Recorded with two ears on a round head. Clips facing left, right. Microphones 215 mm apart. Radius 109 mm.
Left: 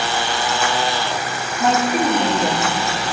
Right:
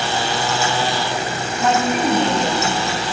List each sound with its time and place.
1.6 s a woman speaking: centre (ahead or behind), 3.5 m; by 2.8 s 5° left (ahead or behind), 1.9 m